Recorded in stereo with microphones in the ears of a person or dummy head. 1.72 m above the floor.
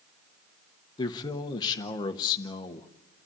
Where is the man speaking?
30° left (ahead or behind), 1.1 m.